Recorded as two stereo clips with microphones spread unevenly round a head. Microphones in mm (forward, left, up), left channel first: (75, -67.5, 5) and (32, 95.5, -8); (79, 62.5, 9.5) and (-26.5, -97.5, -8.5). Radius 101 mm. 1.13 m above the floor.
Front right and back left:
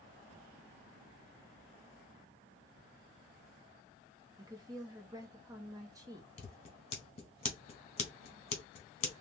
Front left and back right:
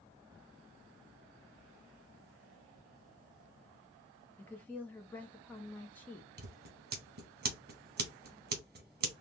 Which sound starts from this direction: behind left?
A woman speaking, at 4.4 s.